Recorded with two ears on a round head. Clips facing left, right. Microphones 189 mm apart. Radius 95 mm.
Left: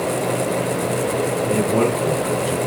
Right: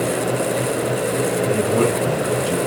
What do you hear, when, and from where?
1.5 s a man speaking: 30° right (ahead or behind), 5 m